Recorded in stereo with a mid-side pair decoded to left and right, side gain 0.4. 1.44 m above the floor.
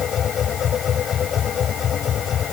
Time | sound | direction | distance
0.0 | a machine running | 65° left | ?